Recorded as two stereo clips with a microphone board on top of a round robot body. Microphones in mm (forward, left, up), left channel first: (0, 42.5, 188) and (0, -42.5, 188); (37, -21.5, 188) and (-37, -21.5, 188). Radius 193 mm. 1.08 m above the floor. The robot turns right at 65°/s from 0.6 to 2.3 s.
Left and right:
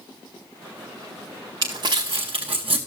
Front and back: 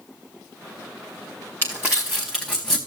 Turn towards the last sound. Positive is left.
turn(degrees=-85)